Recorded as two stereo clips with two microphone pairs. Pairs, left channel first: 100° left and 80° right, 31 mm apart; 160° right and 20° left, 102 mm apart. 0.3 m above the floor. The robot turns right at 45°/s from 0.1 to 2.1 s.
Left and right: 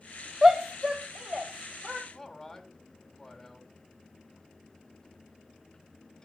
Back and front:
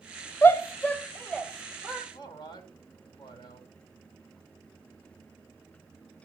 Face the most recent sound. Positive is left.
turn(degrees=175)